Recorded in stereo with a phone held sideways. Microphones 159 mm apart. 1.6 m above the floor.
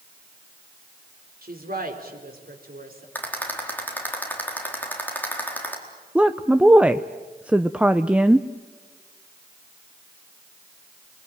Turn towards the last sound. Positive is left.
turn(degrees=-5)  # may be behind; listen again after turning